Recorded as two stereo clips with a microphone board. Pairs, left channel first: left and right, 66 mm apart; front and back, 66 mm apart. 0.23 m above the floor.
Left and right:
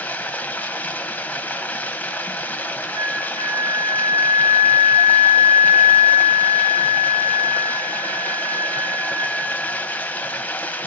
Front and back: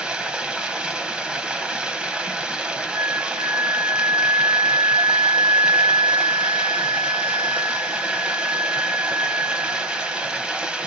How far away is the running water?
About 0.8 m.